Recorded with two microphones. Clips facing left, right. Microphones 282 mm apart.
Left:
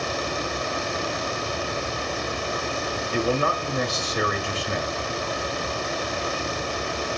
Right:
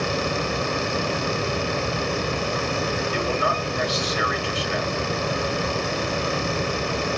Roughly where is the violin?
I don't hear a violin.